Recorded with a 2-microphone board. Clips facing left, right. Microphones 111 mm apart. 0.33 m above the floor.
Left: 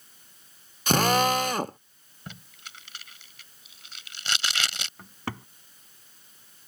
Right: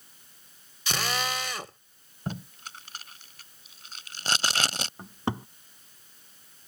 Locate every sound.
0.9 s a drill: 50° left (ahead or behind)
2.3 s tape being pulled: 40° right (ahead or behind)
5.0 s a cupboard door: 25° right (ahead or behind)